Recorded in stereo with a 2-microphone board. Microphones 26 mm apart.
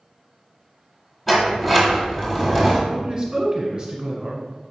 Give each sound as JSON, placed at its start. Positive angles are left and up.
{"t": 1.3, "sound": "a sliding door", "side_deg": 10, "distance_m": 1.3}
{"t": 2.9, "sound": "a man speaking", "side_deg": -25, "distance_m": 1.3}